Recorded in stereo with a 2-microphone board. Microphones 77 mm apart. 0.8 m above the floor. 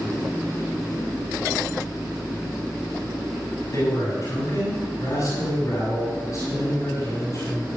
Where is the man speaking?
45° left (ahead or behind), 7 m.